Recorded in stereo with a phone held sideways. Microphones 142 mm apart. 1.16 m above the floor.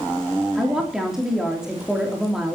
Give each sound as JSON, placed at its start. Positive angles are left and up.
{"t": 0.6, "sound": "a woman speaking", "side_deg": -5, "distance_m": 3.0}